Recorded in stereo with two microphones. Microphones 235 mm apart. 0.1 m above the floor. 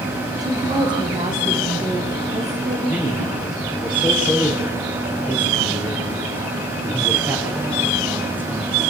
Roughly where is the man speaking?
Centre.